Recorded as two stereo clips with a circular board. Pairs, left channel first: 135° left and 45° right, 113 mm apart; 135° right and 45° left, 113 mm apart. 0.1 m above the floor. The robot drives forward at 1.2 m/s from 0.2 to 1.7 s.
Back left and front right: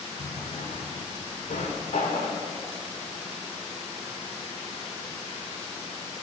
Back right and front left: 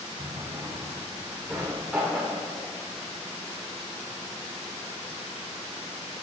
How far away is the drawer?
About 2 m.